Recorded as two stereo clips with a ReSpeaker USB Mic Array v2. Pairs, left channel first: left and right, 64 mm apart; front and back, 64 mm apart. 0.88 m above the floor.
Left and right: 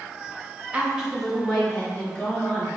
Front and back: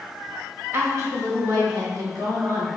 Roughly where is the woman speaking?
Behind right.